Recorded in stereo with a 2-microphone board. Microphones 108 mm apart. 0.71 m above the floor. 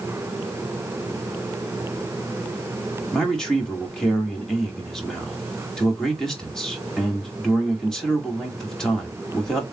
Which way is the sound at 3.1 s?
5° left (ahead or behind).